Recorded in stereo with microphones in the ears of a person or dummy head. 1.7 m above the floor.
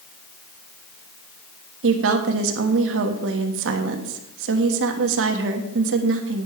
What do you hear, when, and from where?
1.8 s a woman speaking: 75° right (ahead or behind), 1.3 m